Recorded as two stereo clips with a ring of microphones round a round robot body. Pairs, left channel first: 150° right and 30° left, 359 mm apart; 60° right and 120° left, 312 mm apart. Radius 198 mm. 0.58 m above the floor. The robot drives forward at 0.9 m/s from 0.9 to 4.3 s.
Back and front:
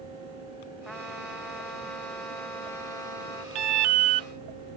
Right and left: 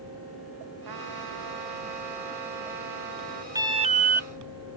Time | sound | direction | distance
0.8 | a trumpet | 120° left | ?
3.5 | an alarm | 40° left | ?